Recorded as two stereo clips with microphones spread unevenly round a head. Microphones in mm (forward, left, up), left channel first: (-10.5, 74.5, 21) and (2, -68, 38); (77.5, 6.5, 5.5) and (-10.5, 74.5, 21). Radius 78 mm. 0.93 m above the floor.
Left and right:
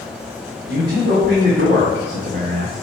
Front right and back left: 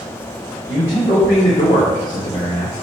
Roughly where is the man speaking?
Right.